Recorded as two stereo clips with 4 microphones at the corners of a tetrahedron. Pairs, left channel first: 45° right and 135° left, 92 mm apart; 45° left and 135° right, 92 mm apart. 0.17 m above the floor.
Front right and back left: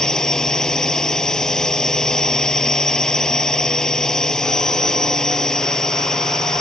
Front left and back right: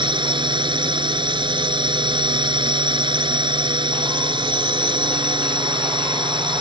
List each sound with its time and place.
0.0 s a drone: 130° right